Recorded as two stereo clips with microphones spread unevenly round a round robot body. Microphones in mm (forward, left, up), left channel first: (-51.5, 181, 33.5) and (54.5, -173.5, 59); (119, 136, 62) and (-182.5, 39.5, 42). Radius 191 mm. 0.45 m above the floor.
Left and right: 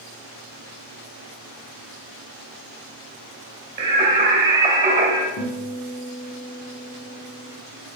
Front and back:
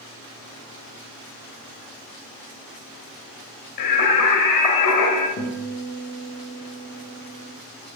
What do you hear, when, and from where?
3.8 s singing: 5° left, 2.5 m
5.4 s a guitar: 75° left, 1.8 m